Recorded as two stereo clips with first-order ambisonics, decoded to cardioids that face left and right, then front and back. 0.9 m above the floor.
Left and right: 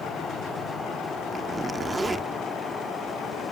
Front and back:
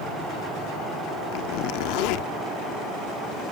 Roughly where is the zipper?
Ahead.